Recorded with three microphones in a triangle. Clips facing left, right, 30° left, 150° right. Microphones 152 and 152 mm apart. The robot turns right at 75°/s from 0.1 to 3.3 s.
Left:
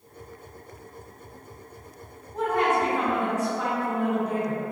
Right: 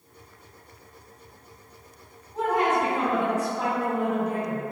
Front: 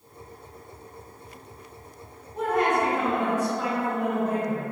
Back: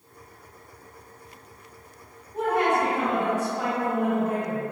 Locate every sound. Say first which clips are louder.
2.3 s a woman speaking: even, back 1 dB; straight behind, 1.8 m; by 4.6 s 110° right, 1.8 m